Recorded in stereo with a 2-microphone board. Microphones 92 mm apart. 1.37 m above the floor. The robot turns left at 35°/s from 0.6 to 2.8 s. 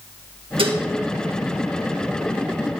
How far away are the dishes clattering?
About 1.5 m.